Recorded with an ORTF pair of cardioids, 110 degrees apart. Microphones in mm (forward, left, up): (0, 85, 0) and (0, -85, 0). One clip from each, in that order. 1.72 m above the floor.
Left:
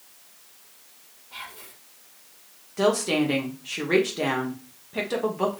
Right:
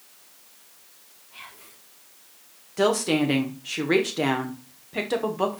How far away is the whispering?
About 1.4 m.